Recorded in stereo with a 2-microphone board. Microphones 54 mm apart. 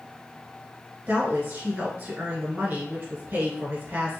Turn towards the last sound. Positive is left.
turn(degrees=-35)  # may be behind; listen again after turning